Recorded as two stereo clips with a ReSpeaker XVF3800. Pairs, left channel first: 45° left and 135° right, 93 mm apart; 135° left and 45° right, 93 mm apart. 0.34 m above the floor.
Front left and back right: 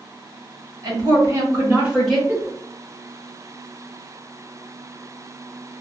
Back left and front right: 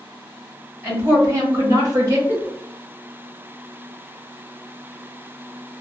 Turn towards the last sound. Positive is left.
turn(degrees=165)